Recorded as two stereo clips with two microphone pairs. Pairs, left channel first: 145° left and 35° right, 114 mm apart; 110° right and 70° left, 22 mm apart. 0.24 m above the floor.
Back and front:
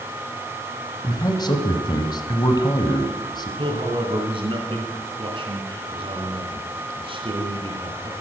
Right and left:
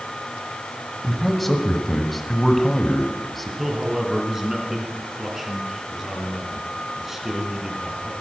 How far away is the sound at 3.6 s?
About 2.5 m.